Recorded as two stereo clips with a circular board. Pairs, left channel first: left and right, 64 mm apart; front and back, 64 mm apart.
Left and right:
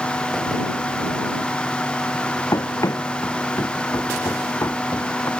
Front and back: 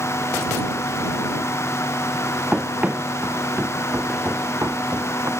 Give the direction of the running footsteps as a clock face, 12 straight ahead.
8 o'clock.